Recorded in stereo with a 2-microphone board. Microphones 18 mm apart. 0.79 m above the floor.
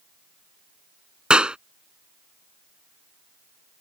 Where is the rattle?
No rattle in this recording.